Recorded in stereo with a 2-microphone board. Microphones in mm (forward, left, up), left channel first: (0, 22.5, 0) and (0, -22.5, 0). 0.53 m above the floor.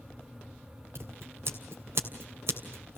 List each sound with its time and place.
0.9 s scissors: 65° right (ahead or behind), 2.5 m